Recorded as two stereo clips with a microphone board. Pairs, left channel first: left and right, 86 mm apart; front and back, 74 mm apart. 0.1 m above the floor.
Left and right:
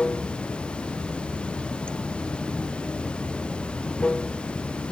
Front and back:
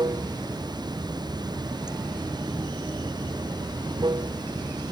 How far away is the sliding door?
No sliding door in this recording.